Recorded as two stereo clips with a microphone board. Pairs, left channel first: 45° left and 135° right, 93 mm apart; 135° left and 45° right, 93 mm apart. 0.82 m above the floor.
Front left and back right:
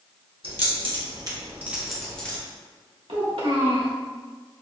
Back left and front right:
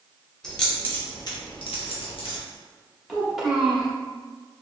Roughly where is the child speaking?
Behind right.